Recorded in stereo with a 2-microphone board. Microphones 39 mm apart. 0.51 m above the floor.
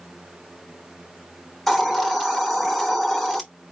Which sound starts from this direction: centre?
A hiss, at 1.7 s.